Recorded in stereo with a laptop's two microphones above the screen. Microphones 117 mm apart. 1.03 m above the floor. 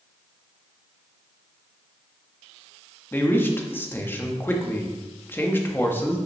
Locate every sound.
3.1 s a man speaking: 20° left (ahead or behind), 1.2 m